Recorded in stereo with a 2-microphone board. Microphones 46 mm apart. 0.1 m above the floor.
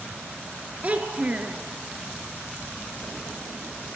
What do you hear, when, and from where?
0.8 s a child speaking: 30° right (ahead or behind), 1.3 m